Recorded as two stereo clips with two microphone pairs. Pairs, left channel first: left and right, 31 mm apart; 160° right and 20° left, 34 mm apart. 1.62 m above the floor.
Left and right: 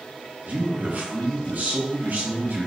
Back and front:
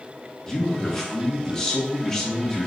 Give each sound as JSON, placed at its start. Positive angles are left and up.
{"t": 0.5, "sound": "a man speaking", "azimuth_deg": -85, "distance_m": 2.0}